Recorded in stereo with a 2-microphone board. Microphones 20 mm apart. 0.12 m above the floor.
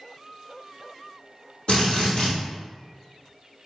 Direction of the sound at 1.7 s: 55° left (ahead or behind).